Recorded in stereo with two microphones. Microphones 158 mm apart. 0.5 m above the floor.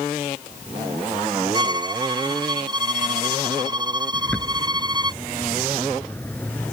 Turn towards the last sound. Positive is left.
turn(degrees=10)  # may be behind; listen again after turning